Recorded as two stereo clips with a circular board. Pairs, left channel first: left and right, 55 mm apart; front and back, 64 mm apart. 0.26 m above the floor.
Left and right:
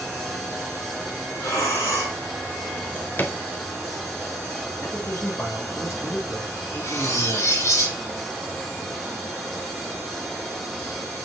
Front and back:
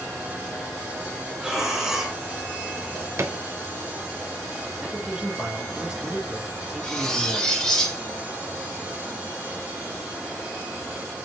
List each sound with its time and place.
1.4 s breathing: 100° left, 4 m
2.8 s a drawer: 140° left, 0.9 m
4.8 s a man speaking: 110° left, 3 m
6.8 s cutlery clinking: 80° left, 3 m